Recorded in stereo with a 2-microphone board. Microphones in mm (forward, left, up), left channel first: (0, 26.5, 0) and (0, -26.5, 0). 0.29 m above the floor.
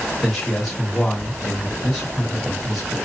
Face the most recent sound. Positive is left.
turn(degrees=15)  # may be behind; listen again after turning